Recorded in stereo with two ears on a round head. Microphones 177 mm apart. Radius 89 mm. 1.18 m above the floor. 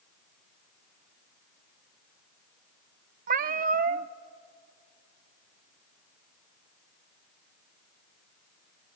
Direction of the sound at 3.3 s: 45° right (ahead or behind).